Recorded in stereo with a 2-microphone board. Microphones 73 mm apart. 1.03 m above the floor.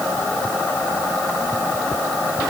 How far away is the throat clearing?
No throat clearing in this recording.